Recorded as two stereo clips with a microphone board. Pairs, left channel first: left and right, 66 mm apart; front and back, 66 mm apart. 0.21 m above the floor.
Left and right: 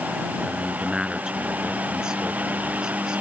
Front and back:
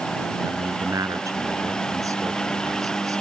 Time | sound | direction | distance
0.5 | a man speaking | 165° right | ?